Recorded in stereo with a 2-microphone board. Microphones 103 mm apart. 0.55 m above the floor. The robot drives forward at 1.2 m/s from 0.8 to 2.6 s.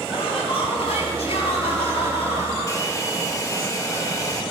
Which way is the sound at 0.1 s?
70° left (ahead or behind).